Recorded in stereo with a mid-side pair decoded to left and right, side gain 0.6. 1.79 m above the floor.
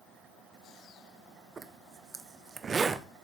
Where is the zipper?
30° right, 1.4 m.